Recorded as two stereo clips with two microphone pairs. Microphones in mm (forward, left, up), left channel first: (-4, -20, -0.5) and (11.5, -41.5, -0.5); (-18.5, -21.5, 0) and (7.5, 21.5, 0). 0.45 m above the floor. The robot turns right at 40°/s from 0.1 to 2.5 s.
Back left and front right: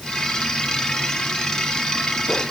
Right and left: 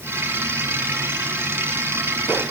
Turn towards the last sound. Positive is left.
No sound to turn to.